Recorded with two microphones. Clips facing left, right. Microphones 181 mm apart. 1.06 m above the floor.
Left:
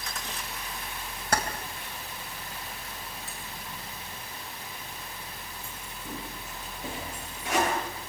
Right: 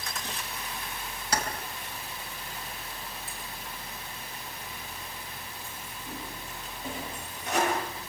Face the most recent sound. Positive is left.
turn(degrees=90)